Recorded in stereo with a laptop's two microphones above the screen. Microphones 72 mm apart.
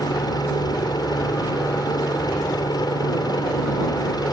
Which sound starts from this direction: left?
A helicopter, at 0.0 s.